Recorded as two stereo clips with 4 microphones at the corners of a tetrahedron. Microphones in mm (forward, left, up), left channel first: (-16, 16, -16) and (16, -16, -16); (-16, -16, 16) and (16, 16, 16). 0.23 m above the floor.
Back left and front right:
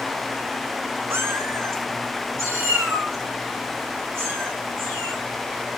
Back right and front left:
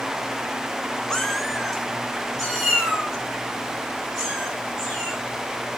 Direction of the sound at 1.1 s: 55° right.